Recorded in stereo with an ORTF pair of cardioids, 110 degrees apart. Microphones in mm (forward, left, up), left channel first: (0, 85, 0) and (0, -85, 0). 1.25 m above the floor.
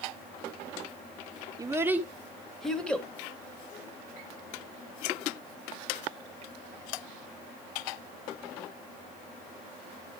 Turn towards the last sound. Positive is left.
turn(degrees=10)